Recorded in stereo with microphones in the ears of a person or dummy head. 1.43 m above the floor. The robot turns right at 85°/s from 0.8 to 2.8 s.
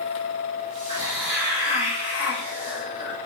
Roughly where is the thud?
I don't hear a thud.